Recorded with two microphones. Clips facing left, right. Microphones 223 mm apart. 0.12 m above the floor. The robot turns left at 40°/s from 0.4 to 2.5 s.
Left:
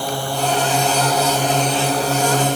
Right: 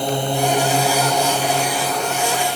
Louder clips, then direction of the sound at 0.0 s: Right 3 dB; 155° right.